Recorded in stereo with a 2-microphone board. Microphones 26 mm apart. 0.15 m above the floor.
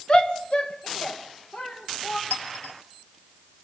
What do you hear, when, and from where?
0.1 s a shout: 40° left (ahead or behind), 1.7 m; by 2.2 s 55° left (ahead or behind), 4 m
2.3 s a clink: 70° left (ahead or behind), 2.5 m